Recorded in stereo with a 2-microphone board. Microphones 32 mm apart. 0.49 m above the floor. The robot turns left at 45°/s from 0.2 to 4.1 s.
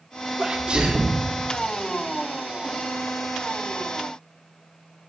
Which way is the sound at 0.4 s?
110° right.